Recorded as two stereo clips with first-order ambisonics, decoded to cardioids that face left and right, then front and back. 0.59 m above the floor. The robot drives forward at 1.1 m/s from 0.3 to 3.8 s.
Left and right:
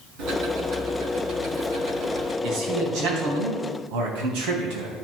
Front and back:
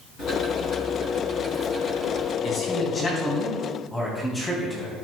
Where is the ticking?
60° right, 3 m; by 2.3 s 105° right, 2.5 m.